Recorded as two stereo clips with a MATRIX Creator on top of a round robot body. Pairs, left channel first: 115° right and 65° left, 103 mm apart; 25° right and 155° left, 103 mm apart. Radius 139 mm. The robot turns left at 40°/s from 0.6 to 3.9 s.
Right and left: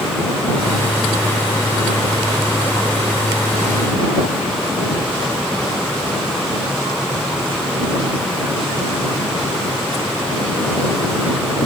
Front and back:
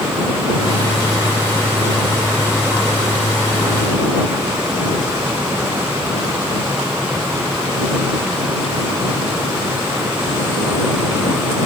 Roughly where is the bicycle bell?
I don't hear a bicycle bell.